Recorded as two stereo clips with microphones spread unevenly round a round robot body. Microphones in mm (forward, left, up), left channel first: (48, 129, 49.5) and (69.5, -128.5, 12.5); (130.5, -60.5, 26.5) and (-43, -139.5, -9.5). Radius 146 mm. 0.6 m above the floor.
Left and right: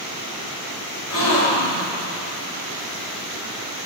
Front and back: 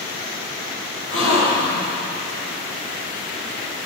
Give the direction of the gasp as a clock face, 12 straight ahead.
10 o'clock.